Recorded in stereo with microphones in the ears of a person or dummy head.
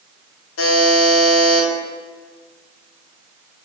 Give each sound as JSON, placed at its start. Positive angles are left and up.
{"t": 0.6, "sound": "a buzzer", "side_deg": 70, "distance_m": 0.7}